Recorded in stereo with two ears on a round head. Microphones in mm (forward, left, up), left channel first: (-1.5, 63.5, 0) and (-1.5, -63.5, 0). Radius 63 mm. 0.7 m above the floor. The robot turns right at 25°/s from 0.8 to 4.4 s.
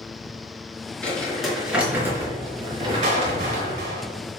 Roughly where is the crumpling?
Behind.